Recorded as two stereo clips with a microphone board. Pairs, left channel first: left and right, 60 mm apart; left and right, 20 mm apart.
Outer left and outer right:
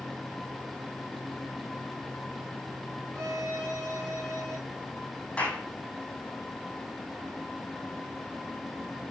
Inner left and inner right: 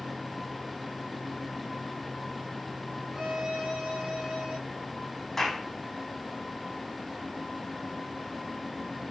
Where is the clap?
20° left (ahead or behind), 4.5 m.